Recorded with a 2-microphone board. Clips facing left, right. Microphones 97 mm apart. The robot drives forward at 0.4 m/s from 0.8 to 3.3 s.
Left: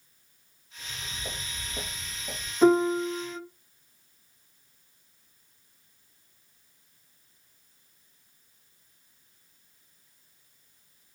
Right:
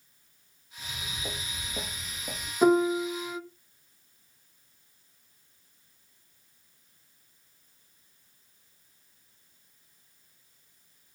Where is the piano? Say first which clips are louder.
Left 1 dB; 15° right (ahead or behind), 1.4 m; by 3.4 s 10° right (ahead or behind), 1.6 m.